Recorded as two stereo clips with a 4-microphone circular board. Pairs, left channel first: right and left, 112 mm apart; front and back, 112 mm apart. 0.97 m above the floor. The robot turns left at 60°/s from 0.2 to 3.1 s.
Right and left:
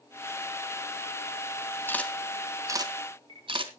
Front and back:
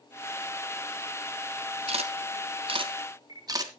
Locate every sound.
1.9 s a camera shutter: 160° right, 1.9 m; by 3.7 s 125° left, 1.9 m